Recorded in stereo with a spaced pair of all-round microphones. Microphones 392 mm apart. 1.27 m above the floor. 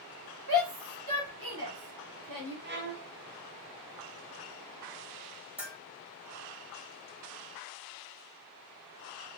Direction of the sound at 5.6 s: 5° right (ahead or behind).